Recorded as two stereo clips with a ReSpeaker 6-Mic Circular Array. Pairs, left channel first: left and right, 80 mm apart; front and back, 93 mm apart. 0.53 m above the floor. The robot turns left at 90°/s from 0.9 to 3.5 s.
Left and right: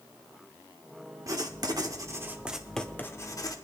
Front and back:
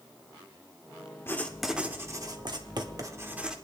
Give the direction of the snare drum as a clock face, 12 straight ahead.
No snare drum in this recording.